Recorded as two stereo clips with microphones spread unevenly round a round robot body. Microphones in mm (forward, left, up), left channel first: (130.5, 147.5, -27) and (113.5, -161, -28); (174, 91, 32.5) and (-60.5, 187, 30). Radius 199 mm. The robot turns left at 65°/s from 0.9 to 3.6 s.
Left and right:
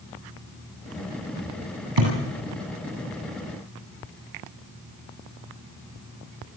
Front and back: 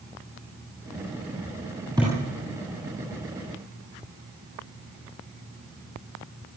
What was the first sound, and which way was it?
A thud, 120° right.